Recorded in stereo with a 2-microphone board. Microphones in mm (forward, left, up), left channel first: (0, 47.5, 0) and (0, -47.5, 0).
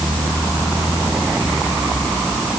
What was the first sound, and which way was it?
Only background noise.